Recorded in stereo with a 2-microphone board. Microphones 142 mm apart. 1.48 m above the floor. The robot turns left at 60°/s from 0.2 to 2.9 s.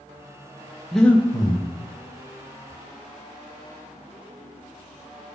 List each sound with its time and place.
0.9 s breathing: straight behind, 0.6 m; by 1.7 s 135° left, 0.6 m